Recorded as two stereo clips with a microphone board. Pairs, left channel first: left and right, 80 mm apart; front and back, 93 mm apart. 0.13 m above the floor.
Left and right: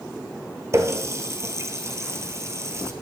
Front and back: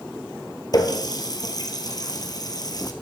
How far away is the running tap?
About 1.8 m.